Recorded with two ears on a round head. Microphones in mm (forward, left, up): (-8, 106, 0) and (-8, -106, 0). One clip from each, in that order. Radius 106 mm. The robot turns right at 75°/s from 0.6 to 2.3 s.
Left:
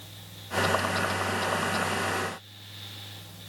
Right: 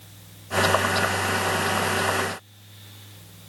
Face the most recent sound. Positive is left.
No sound to turn to.